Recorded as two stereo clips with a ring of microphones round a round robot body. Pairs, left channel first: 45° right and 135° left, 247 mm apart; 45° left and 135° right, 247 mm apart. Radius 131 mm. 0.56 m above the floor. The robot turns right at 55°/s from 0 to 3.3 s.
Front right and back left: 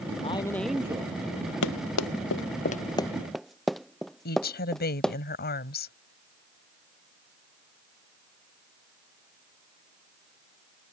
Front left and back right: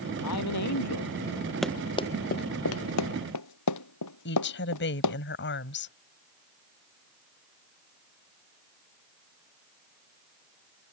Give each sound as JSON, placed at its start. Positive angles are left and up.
{"t": 0.2, "sound": "a man speaking", "azimuth_deg": 20}
{"t": 1.6, "sound": "running footsteps", "azimuth_deg": -45}
{"t": 4.2, "sound": "a woman speaking", "azimuth_deg": 5}